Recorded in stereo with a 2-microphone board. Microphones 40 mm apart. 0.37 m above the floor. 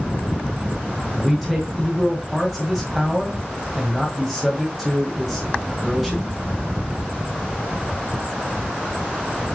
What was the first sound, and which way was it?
A man speaking, centre (ahead or behind).